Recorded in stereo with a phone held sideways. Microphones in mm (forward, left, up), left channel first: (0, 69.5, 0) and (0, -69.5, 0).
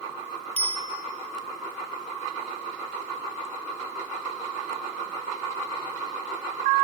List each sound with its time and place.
0.6 s a bicycle bell: 50° right (ahead or behind), 5.5 m